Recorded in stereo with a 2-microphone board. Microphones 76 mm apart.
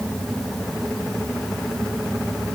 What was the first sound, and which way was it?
Only background noise.